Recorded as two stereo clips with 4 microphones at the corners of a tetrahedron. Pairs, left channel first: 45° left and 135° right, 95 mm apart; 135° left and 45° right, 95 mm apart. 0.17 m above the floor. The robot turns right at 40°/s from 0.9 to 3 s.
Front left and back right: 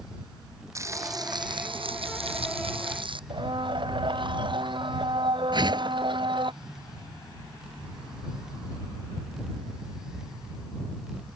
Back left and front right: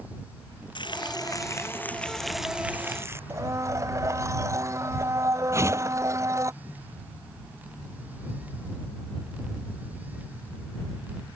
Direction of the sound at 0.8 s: 170° left.